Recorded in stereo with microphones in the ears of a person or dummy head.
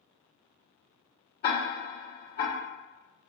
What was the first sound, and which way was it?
Ticking, 45° left (ahead or behind).